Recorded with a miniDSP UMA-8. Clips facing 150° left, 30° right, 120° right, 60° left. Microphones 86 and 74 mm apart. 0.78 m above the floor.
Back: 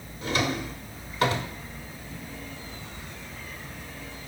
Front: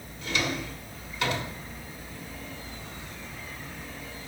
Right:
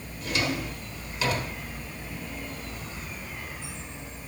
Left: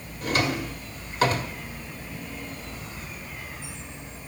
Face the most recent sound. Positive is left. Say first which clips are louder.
# back 3 dB, left 3 dB
turn(degrees=105)